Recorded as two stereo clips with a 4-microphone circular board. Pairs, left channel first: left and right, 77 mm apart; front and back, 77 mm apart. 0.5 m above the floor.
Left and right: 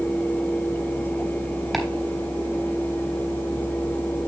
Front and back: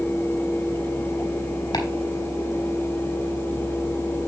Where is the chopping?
Straight ahead, 3.5 m.